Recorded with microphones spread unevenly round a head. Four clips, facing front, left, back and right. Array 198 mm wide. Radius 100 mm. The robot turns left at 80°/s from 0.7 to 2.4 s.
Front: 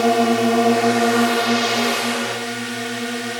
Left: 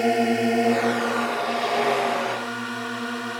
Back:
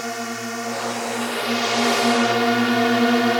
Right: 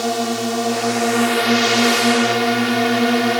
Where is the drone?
5° left; by 3.4 s 130° right.